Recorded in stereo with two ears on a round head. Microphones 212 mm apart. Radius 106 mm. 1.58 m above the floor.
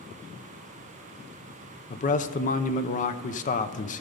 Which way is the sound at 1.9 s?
35° left (ahead or behind).